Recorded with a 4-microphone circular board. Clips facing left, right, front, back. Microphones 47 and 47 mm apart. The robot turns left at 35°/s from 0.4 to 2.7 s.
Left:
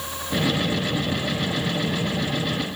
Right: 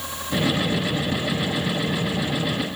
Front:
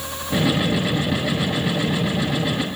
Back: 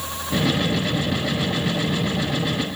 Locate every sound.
Only background noise.